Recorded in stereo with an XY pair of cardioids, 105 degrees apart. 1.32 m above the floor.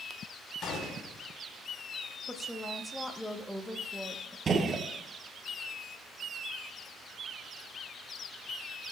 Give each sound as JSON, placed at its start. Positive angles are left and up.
{"t": 0.6, "sound": "a gunshot", "azimuth_deg": 65, "distance_m": 3.5}
{"t": 2.3, "sound": "a woman speaking", "azimuth_deg": 10, "distance_m": 1.3}
{"t": 4.5, "sound": "a gunshot", "azimuth_deg": -40, "distance_m": 1.5}